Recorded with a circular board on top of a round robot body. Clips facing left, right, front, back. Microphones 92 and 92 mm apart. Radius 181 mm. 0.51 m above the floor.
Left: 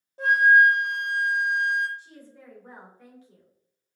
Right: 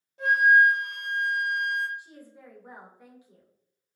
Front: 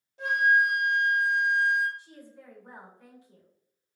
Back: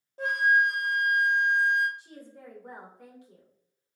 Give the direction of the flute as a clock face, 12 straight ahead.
7 o'clock.